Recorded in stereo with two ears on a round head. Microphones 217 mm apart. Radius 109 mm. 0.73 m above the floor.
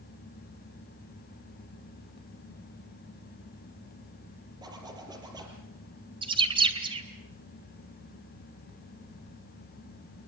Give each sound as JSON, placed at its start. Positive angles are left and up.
{"t": 4.6, "sound": "a zipper", "side_deg": -15, "distance_m": 5.0}
{"t": 6.2, "sound": "a bird", "side_deg": -20, "distance_m": 2.5}